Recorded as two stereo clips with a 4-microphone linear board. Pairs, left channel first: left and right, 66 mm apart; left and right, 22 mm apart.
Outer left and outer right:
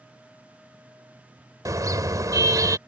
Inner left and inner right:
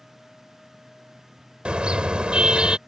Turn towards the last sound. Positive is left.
turn(degrees=-55)  # may be behind; listen again after turning